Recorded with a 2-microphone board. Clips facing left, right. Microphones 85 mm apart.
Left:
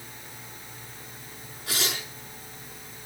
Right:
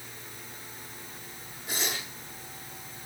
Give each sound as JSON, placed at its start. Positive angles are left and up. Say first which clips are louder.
{"t": 1.7, "sound": "tearing paper", "louder": "left 2 dB", "side_deg": 80, "distance_m": 7.0}